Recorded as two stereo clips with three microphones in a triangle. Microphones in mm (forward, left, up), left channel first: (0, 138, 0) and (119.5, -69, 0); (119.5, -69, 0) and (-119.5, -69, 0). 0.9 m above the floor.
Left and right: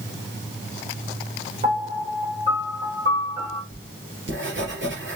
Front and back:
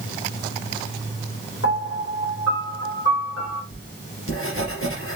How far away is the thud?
No thud in this recording.